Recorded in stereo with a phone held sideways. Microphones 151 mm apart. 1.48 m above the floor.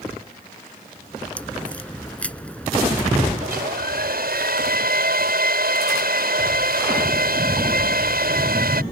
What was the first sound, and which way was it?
A crack, 10° left (ahead or behind).